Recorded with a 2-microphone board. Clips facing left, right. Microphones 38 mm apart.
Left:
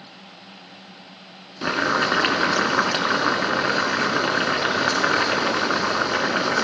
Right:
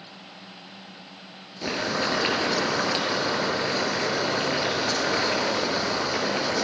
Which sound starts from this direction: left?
Boiling, at 1.6 s.